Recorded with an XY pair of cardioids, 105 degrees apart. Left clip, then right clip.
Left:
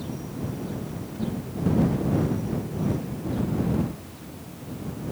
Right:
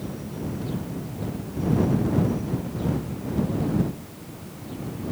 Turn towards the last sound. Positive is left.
No sound to turn to.